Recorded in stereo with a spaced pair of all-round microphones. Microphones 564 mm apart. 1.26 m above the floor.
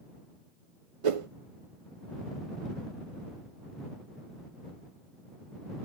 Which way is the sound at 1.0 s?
65° right (ahead or behind).